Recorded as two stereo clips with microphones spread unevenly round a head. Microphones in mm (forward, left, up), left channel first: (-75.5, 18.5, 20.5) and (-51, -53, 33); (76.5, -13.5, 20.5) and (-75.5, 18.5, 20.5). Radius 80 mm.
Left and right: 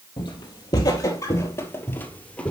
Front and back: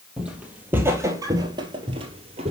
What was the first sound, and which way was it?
Footsteps, 85° left.